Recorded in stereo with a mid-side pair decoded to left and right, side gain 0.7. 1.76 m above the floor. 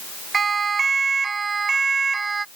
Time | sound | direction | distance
0.3 | a siren | 20° right | ?